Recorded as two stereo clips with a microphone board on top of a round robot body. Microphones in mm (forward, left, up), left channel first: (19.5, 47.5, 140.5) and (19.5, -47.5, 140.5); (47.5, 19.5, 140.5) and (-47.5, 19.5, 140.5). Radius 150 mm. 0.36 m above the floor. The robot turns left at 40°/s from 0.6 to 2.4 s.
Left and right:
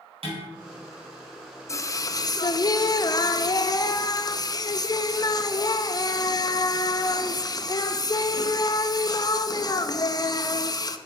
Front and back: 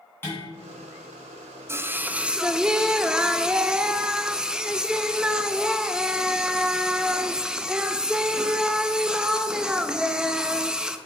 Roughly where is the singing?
Behind left.